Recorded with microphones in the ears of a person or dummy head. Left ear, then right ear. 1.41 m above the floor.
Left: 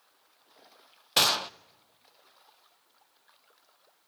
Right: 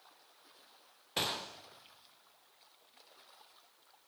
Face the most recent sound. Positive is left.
turn(degrees=45)  # may be behind; listen again after turning